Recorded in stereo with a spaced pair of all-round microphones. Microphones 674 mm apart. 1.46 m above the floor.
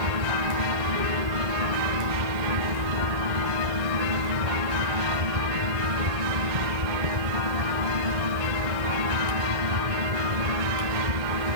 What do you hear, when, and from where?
0.0 s a fan: 75° right (ahead or behind)